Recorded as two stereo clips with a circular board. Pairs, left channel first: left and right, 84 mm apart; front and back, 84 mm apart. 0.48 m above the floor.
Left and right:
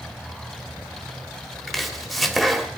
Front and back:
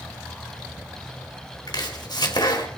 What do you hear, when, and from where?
1.7 s chopping: straight ahead, 2.5 m